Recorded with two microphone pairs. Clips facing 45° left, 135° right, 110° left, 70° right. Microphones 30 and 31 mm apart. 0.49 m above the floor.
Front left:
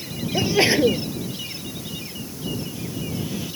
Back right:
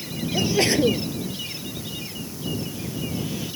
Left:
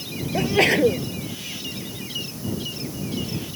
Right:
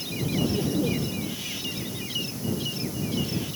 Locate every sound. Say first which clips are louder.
0.3 s a sneeze: front left 2 dB, left 8 dB; 115° left